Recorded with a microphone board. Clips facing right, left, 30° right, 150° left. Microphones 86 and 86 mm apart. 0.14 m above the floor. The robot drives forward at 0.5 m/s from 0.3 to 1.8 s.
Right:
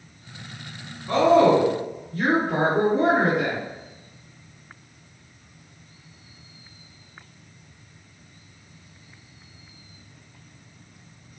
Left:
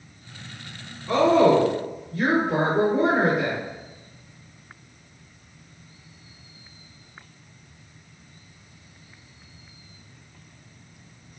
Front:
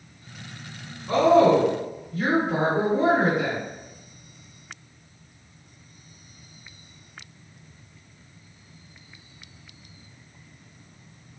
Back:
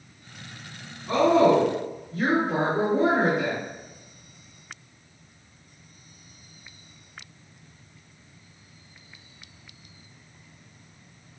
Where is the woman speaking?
160° left, 1.9 m; by 3.6 s 165° left, 2 m.